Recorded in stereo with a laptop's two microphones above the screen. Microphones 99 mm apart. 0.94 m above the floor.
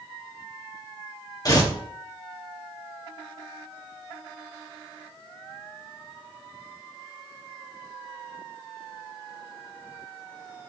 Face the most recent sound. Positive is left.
turn(degrees=40)  # may be behind; listen again after turning